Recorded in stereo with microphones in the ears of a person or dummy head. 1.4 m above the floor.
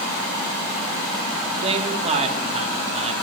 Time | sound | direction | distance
1.6 | a man speaking | 40° right (ahead or behind) | 2.5 m